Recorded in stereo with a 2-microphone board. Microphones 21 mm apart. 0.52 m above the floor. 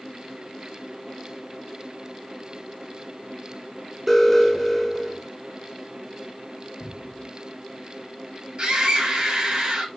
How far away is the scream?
About 3.5 m.